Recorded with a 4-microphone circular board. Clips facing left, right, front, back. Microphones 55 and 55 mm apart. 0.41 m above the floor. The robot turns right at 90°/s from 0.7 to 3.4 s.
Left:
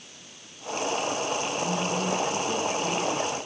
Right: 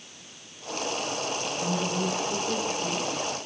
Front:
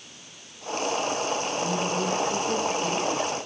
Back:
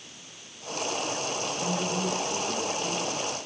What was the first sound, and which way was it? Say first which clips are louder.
A woman speaking: left 1 dB, even; 160° right.